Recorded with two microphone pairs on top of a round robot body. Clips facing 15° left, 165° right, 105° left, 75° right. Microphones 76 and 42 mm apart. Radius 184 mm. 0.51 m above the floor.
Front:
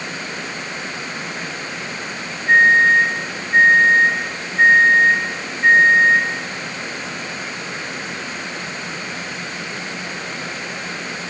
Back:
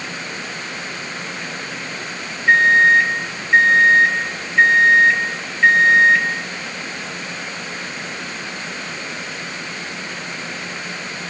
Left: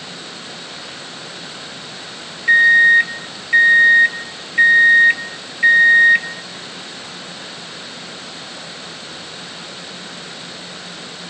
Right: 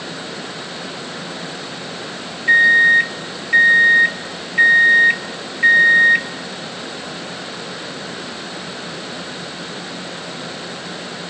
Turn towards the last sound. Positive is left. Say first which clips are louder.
# even, left 1 dB
turn(degrees=-170)